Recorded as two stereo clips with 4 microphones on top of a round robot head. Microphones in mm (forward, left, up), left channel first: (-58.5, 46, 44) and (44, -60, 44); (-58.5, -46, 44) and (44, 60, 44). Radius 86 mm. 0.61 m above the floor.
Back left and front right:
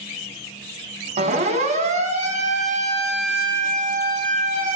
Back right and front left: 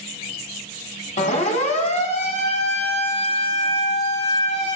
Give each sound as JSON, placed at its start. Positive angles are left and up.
{"t": 1.2, "sound": "a siren", "azimuth_deg": -90, "distance_m": 6.5}